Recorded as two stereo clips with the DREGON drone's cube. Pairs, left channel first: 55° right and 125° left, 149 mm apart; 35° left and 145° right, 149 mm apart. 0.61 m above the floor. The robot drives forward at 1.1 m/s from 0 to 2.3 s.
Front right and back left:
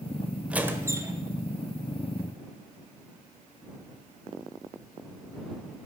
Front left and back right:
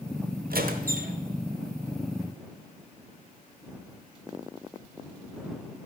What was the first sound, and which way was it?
A squeak, 155° right.